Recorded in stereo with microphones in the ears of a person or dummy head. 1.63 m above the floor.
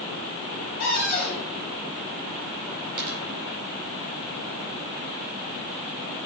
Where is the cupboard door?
45° left (ahead or behind), 2 m.